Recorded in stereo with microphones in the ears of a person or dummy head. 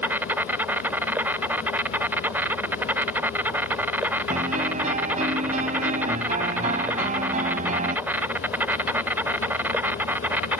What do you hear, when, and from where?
0.0 s an insect: 5° right (ahead or behind)
4.3 s a piano: 45° right (ahead or behind)